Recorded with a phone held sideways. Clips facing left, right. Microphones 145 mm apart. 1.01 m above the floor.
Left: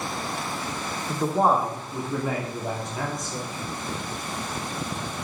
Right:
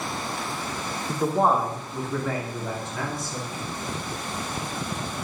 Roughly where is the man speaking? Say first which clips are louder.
Even; centre.